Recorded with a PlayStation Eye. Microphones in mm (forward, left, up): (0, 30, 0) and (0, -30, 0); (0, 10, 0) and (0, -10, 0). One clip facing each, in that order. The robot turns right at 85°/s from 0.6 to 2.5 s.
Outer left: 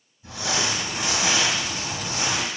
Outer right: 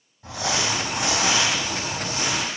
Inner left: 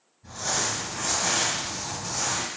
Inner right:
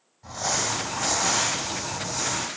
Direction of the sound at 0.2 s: 110° right.